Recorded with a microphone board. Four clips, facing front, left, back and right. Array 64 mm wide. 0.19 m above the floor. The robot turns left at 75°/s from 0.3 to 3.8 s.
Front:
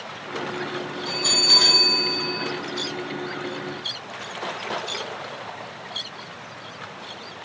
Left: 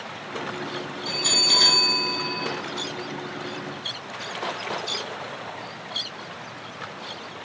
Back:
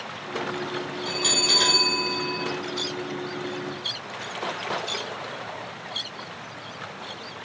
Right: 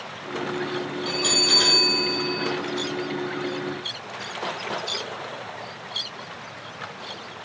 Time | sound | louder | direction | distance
1.1 | a bell | right 1 dB, front 1 dB | 105° right | 1.8 m